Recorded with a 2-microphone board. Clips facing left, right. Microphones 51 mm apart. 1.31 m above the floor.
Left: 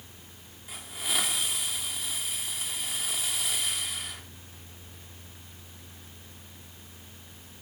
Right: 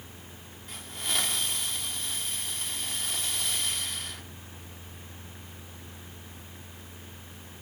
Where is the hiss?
5° left (ahead or behind), 2.5 m.